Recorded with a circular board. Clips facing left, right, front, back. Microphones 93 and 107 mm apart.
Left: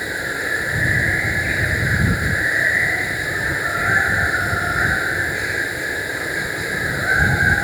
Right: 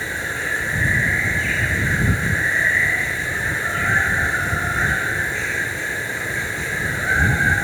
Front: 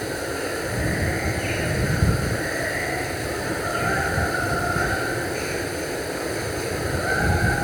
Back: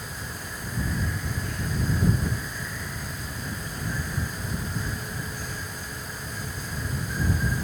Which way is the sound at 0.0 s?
15° left.